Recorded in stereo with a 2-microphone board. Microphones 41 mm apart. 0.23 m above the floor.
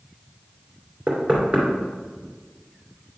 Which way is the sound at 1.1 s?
40° right (ahead or behind).